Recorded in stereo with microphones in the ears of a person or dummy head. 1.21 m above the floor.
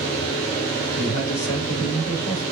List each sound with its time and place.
1.0 s a man speaking: 55° left (ahead or behind), 4.5 m; by 2.4 s 70° left (ahead or behind), 4.5 m